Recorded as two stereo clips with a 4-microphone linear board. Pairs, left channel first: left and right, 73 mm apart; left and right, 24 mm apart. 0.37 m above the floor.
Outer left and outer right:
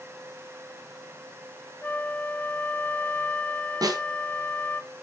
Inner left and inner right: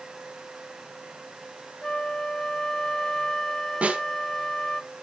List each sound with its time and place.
1.8 s a flute: 20° left (ahead or behind), 0.7 m
3.8 s a snare drum: 65° right (ahead or behind), 2.5 m